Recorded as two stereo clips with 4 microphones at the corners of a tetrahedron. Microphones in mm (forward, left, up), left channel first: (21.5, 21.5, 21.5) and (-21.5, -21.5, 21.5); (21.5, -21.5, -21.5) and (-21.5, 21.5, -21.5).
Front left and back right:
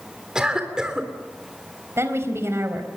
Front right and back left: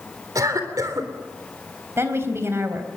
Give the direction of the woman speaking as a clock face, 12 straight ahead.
6 o'clock.